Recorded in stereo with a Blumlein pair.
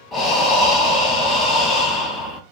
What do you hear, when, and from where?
0.1 s breathing: 20° left, 0.5 m